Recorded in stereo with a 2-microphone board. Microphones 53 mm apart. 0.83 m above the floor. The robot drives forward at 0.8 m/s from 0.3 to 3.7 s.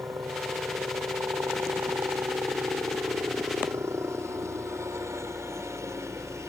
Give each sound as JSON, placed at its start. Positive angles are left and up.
{"t": 0.0, "sound": "a helicopter", "side_deg": -65}